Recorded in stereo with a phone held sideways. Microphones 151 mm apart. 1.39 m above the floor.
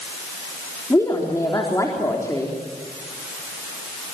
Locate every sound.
0.9 s a woman speaking: 20° left (ahead or behind), 3.5 m